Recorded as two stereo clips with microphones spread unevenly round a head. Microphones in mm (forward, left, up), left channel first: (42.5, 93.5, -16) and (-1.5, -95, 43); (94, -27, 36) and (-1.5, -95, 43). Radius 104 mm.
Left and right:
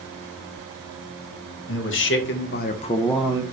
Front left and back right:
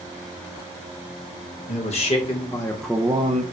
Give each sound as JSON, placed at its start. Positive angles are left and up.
{"t": 1.7, "sound": "a man speaking", "azimuth_deg": 70, "distance_m": 1.3}